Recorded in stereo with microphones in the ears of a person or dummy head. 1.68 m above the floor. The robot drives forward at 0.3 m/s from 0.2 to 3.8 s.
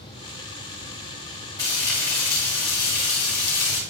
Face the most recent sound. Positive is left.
turn(degrees=15)  # may be behind; listen again after turning